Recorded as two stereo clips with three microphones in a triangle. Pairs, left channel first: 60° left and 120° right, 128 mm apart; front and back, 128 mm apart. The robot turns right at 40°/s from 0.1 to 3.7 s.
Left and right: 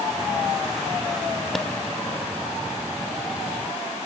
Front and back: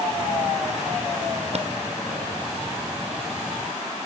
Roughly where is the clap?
Behind left.